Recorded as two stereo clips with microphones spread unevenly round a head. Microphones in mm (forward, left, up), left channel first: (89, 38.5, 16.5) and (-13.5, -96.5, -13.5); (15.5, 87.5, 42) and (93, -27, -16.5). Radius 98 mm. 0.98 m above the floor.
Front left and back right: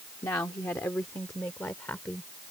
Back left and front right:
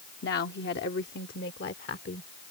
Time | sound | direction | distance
0.2 | a woman speaking | 130° left | ?